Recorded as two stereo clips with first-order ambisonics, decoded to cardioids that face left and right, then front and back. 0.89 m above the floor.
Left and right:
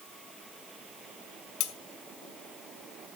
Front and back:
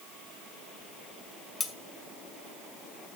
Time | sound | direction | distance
1.6 | cutlery clinking | 70° left | 1.3 m